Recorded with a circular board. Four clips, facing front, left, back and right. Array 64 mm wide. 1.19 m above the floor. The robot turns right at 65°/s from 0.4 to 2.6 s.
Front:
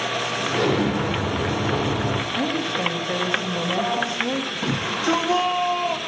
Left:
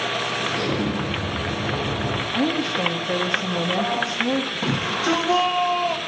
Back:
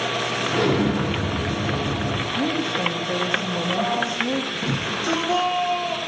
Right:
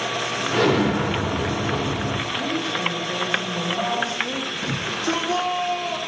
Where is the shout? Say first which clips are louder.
Left 1 dB, front 2 dB; 80° left, 1.8 m.